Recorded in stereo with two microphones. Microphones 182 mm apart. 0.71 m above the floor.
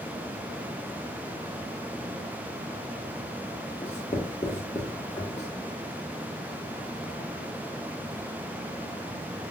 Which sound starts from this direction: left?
Writing, at 3.8 s.